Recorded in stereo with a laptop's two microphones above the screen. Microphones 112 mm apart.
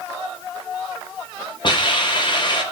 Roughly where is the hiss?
Left.